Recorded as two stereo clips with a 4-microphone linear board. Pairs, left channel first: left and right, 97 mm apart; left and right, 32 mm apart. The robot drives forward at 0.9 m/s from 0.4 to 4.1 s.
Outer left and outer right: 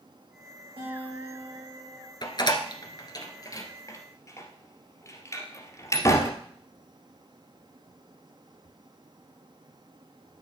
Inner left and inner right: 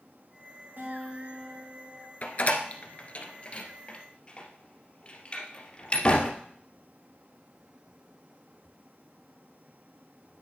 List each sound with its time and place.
0.8 s a guitar: 70° right (ahead or behind), 6 m; by 2.1 s 80° right, 5.5 m
2.2 s a door slam: 45° left (ahead or behind), 1.5 m; by 6.3 s 30° left (ahead or behind), 2 m